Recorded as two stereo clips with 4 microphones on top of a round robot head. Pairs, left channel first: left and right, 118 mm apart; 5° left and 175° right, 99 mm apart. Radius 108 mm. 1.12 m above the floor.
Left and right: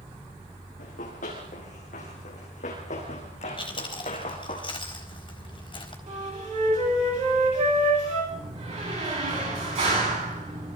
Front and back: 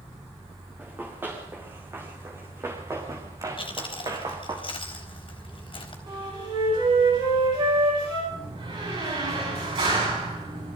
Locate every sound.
0.8 s running footsteps: 115° left, 6.5 m; by 4.6 s 140° left, 5 m
3.6 s chewing: 40° left, 4 m
6.1 s a flute: 125° right, 8.5 m
8.3 s a door slam: 130° right, 9.5 m